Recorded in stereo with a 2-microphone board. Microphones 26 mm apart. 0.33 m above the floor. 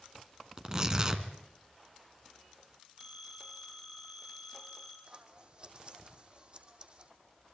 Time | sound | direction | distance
0.6 | tearing paper | 25° right (ahead or behind) | 2 m
3.0 | a phone ringing | 20° right (ahead or behind) | 8 m
5.1 | scissors | 35° right (ahead or behind) | 2 m